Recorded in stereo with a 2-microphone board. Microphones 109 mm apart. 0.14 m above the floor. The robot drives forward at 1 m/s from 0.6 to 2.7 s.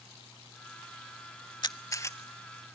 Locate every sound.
1.6 s a camera shutter: 45° left (ahead or behind), 0.5 m; by 2.7 s 15° left (ahead or behind), 1.4 m